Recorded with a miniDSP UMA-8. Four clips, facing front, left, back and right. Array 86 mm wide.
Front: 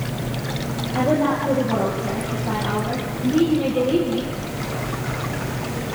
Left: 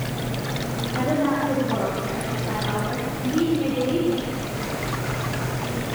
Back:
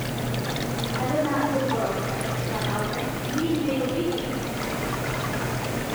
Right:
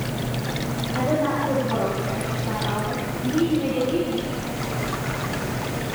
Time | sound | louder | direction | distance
0.9 | a woman speaking | left 1 dB, front 5 dB | 5° left | 10 m